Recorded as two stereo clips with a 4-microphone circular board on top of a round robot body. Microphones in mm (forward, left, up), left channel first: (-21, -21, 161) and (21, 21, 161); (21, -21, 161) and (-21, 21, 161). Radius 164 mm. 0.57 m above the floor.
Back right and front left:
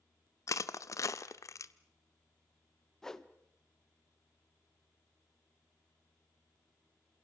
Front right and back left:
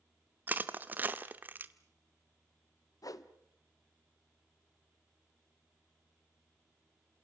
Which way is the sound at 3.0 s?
55° right.